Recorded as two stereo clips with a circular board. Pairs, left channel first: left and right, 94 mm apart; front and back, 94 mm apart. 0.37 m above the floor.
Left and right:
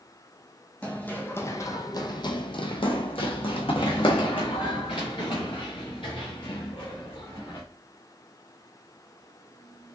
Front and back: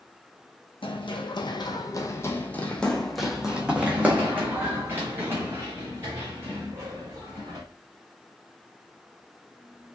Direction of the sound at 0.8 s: 15° left.